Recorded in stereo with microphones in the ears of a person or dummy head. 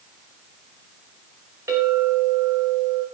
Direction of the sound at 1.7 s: 15° right (ahead or behind).